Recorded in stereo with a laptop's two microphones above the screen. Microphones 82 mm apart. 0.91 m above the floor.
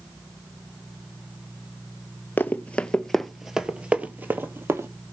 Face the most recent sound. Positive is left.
turn(degrees=-30)  # may be behind; listen again after turning